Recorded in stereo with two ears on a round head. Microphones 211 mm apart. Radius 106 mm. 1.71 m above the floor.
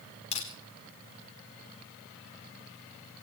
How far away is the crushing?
About 4.5 m.